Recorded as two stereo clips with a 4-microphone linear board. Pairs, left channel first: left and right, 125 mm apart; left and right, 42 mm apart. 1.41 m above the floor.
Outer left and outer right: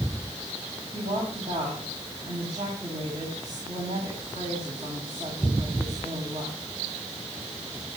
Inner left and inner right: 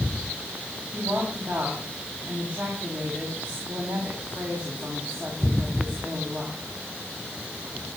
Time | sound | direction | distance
0.9 | a woman speaking | 55° right (ahead or behind) | 8 m